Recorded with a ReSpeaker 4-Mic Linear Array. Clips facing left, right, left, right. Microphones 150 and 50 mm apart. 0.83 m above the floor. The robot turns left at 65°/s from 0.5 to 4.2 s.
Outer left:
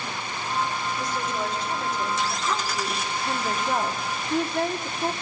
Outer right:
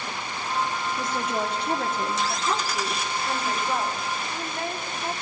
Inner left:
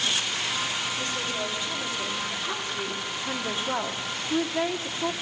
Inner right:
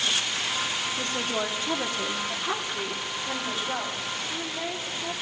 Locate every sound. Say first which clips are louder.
1.0 s a woman speaking: outer right 3 dB, inner right 1 dB; 60° right, 1.4 m; by 5.1 s 90° left, 1.4 m